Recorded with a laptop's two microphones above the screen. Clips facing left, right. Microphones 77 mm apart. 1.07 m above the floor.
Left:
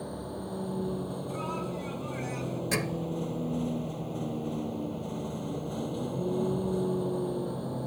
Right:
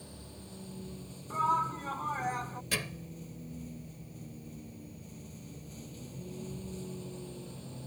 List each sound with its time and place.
0.0 s a vehicle: 55° left (ahead or behind); by 7.9 s 50° left (ahead or behind)
1.3 s a shout: 45° right (ahead or behind)
2.7 s a thud: 25° left (ahead or behind)